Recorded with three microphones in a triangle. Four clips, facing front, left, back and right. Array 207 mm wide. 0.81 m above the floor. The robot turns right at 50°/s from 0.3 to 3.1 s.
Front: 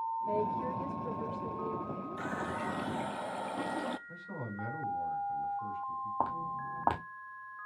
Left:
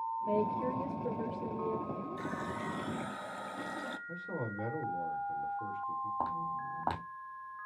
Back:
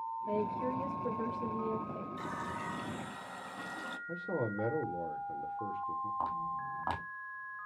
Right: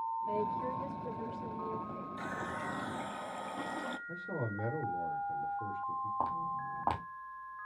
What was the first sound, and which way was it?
A woman speaking, 85° left.